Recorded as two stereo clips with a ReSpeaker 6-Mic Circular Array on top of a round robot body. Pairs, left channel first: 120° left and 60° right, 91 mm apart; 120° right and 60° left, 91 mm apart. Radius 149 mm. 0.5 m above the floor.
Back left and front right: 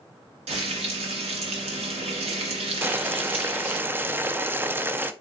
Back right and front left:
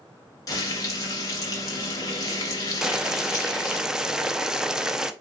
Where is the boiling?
20° right, 0.6 m.